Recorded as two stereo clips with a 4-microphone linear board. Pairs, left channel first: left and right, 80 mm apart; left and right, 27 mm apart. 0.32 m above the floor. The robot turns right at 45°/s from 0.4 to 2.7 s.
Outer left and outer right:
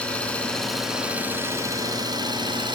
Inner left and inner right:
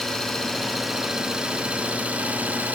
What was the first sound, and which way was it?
An engine running, 165° left.